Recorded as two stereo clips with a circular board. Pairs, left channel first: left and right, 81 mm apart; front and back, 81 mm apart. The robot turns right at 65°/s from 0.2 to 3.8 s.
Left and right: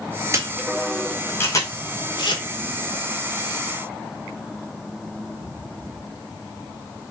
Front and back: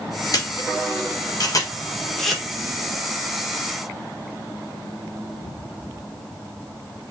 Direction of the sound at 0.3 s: 40° right.